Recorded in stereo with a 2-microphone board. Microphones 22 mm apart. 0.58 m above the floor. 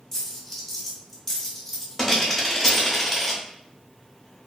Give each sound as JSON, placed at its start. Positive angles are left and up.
{"t": 0.1, "sound": "a dropped coin", "side_deg": 20, "distance_m": 0.9}